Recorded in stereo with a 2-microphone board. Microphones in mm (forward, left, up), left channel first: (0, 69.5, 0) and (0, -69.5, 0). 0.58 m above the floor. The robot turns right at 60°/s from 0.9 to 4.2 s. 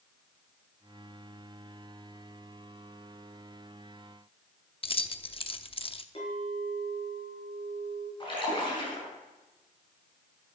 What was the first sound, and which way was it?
Keys jangling, 40° left (ahead or behind).